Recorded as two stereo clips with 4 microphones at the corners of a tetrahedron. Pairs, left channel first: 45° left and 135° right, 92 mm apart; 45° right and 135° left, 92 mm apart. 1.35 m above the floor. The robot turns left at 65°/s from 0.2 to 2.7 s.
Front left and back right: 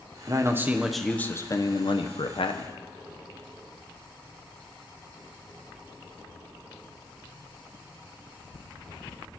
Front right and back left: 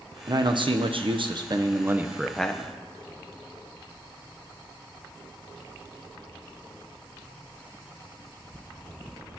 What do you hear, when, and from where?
0.3 s a man speaking: straight behind, 0.9 m; by 2.7 s 20° left, 0.9 m